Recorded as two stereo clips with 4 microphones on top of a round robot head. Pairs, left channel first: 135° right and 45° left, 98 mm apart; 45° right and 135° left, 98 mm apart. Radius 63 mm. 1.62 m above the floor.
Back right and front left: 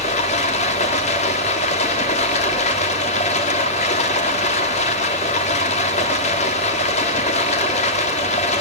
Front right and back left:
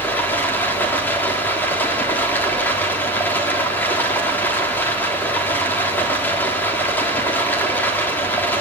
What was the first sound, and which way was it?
Running water, 120° right.